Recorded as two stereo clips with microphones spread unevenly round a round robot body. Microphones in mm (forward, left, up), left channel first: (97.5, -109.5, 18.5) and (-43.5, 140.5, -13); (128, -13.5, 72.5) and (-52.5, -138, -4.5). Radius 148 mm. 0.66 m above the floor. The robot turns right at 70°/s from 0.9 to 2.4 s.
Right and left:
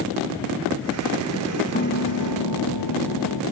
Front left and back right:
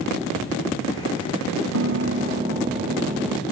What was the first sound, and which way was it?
A piano, 125° right.